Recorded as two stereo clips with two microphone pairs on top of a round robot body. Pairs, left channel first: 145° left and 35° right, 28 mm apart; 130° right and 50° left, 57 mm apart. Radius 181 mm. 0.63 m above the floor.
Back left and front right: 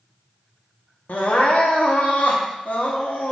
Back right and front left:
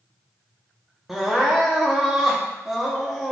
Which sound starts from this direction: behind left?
Crying, at 1.1 s.